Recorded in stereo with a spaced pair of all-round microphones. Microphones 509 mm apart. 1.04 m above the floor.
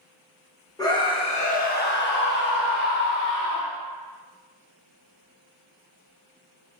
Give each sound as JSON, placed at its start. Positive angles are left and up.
{"t": 0.8, "sound": "a scream", "side_deg": 5, "distance_m": 1.2}